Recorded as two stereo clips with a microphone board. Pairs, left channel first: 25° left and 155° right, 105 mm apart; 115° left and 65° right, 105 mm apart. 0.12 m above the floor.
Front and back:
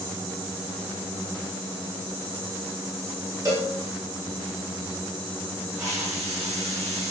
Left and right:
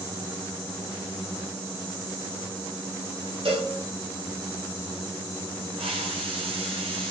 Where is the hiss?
100° right, 6.5 m.